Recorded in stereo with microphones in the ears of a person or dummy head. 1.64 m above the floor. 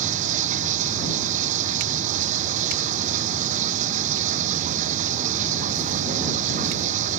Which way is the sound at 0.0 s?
40° right (ahead or behind).